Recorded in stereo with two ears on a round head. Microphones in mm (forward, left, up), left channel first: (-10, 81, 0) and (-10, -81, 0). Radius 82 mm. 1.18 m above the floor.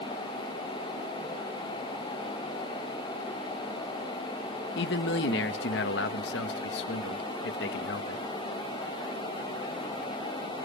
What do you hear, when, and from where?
4.8 s a man speaking: 75° left (ahead or behind), 1.2 m